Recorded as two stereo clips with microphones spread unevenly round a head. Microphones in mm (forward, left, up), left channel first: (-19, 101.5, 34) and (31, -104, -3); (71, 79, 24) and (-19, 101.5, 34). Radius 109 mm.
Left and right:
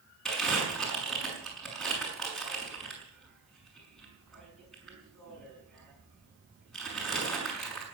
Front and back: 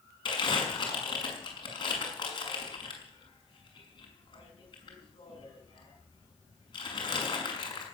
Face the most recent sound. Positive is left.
turn(degrees=15)